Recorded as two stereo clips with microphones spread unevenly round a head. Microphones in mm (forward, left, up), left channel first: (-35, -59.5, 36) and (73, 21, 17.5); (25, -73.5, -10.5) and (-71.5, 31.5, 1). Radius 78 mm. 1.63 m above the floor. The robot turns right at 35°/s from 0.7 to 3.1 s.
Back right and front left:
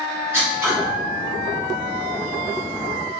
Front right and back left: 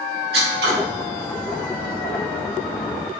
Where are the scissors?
115° left, 1.1 m; by 0.7 s 120° left, 1.1 m.